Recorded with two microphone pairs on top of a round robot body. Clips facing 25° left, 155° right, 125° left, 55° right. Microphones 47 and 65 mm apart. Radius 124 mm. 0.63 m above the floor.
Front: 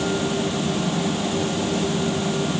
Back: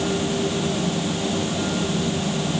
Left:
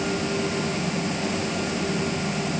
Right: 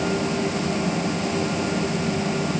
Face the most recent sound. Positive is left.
No sound to turn to.